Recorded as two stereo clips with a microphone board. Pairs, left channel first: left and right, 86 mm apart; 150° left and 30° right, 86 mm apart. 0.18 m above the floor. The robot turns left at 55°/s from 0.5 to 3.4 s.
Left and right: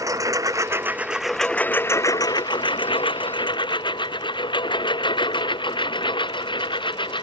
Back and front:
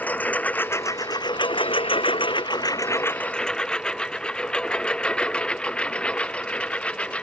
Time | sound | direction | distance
0.0 | a lawn mower | 140° right | ?